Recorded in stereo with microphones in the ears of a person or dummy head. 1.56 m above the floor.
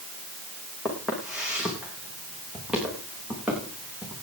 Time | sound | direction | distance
0.8 | footsteps | 5° left (ahead or behind) | 5 m